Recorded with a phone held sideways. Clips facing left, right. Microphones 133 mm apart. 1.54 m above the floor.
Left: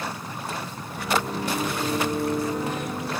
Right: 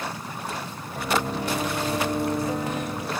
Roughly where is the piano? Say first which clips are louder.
Even; right.